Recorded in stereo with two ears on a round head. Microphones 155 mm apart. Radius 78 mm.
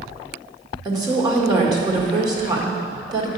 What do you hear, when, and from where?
0.8 s a woman speaking: 25° right (ahead or behind), 1.9 m